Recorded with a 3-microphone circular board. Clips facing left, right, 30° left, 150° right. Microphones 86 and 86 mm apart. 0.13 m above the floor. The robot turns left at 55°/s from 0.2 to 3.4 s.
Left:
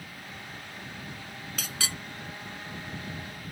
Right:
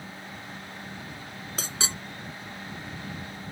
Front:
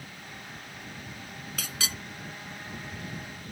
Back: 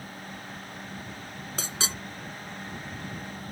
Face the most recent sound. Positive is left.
turn(degrees=145)